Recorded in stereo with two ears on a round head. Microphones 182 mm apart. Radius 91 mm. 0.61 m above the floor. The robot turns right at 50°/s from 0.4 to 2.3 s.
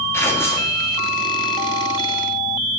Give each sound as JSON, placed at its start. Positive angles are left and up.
{"t": 0.1, "sound": "tearing paper", "side_deg": 10, "distance_m": 1.2}